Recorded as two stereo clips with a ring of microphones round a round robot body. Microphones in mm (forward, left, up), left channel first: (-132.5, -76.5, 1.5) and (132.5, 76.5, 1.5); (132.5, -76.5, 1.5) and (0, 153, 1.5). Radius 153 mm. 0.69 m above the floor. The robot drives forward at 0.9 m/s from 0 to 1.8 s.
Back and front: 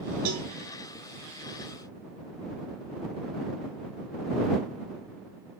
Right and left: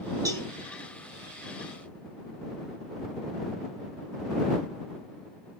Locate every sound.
0.2 s a cowbell: 45° left, 8 m